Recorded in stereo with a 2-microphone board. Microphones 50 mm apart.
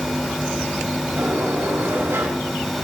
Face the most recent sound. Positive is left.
turn(degrees=-60)  # may be behind; listen again after turning